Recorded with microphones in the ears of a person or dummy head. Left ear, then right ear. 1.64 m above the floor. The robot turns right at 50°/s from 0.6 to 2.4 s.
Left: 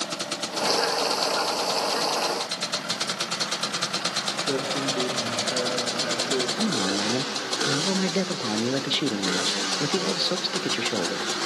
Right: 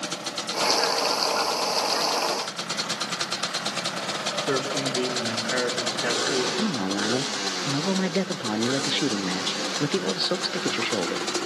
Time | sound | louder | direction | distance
4.5 | a man speaking | even | 70° right (ahead or behind) | 3.5 m
6.6 | a man speaking | left 1 dB | 5° right (ahead or behind) | 0.5 m